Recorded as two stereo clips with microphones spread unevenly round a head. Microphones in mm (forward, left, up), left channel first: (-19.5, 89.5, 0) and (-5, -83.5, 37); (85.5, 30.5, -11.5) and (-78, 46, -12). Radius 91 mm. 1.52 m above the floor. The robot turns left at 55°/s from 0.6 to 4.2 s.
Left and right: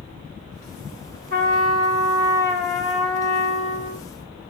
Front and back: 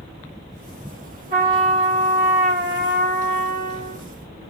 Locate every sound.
1.3 s a trumpet: 130° right, 1.8 m; by 4.0 s 80° left, 1.8 m